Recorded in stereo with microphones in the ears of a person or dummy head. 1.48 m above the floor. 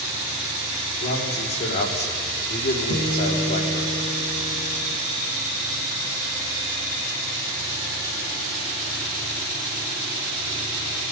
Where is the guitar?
80° left, 7.5 m.